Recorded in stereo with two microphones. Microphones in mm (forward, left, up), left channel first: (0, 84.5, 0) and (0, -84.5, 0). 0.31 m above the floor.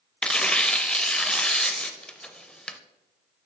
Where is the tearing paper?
5° left (ahead or behind), 0.6 m.